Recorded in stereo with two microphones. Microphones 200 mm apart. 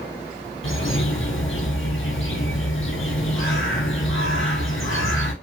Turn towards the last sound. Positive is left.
turn(degrees=85)